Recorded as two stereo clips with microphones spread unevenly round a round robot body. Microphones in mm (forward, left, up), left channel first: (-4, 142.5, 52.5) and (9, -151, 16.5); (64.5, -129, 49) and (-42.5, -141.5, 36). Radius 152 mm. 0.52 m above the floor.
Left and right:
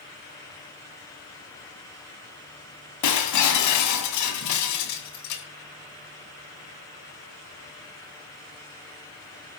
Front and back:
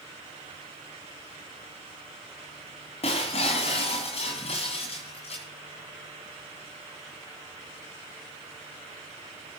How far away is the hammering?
I don't hear hammering.